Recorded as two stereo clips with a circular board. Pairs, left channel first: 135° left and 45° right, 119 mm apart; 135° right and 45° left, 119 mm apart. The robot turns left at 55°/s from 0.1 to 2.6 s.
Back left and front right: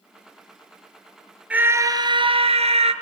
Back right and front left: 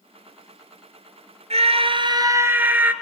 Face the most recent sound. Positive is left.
turn(degrees=-30)